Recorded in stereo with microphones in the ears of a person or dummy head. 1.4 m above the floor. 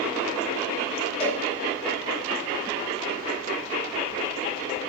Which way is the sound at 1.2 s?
20° left (ahead or behind).